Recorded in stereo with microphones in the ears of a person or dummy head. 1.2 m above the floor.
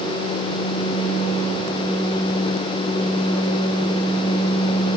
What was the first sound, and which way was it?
Only background noise.